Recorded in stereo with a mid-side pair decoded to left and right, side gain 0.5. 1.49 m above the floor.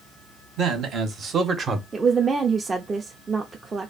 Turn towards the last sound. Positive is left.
turn(degrees=-30)